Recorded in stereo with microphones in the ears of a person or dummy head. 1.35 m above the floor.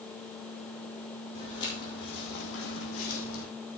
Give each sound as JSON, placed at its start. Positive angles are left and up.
{"t": 1.4, "sound": "footsteps", "side_deg": 30, "distance_m": 2.0}